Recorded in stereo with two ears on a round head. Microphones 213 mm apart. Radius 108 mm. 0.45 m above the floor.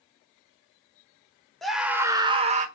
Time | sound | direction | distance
1.6 | a scream | centre (ahead or behind) | 1.4 m